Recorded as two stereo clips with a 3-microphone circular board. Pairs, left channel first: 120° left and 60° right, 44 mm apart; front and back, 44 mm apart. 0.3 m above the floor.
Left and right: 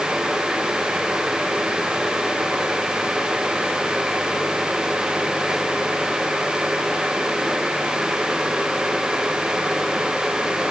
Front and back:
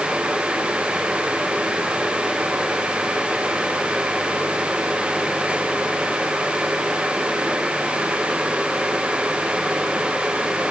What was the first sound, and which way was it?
Only background noise.